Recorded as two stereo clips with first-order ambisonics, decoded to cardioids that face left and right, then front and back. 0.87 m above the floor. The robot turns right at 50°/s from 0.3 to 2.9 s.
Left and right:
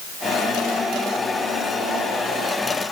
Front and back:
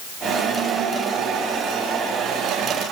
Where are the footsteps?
I don't hear footsteps.